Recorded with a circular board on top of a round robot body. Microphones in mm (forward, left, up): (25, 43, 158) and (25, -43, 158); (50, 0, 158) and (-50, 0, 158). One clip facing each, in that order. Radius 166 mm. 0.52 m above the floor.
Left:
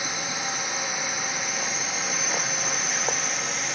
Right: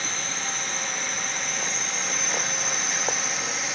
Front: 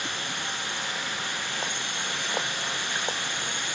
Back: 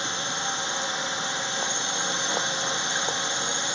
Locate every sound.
0.0 s a drone: 155° left; by 3.8 s straight behind